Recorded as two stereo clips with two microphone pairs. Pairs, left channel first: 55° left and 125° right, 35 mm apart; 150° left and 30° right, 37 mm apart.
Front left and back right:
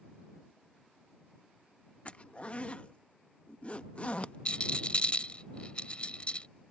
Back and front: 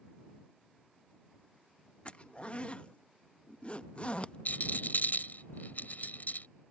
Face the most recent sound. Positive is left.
turn(degrees=110)